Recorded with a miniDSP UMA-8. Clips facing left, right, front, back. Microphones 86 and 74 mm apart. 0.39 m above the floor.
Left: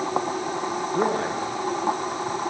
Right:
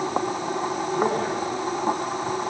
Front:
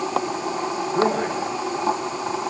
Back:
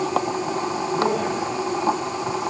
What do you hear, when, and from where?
0.9 s a man speaking: 50° left, 7 m